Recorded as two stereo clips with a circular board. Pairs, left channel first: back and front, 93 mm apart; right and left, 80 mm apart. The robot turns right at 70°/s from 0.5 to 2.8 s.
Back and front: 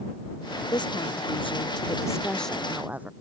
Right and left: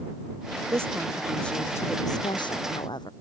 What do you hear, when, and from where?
0.7 s a woman speaking: 140° left; by 3.1 s 75° right